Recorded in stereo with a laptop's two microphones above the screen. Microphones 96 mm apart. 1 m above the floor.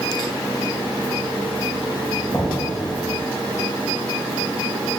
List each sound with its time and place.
2.3 s knocking: 40° left (ahead or behind), 3 m